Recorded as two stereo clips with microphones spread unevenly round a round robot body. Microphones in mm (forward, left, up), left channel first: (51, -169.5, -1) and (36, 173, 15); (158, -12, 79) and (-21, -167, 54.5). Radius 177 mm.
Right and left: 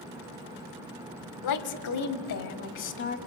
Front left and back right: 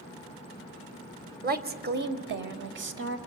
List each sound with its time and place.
1.4 s a woman speaking: 100° right, 1.8 m; by 3.2 s 140° right, 1.9 m